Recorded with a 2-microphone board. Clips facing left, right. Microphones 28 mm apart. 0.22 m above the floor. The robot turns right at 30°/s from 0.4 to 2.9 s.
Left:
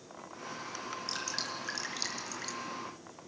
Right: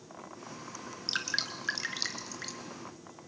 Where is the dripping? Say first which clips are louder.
Right 6 dB; 50° right (ahead or behind), 3 m; by 2.6 s 10° right (ahead or behind), 3 m.